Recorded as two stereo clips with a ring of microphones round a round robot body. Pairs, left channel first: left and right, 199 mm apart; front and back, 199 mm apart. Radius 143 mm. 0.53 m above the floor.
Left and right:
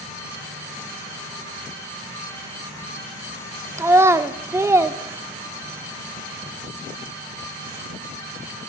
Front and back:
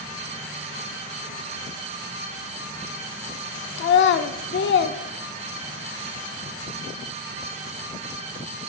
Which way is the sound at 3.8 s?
15° right.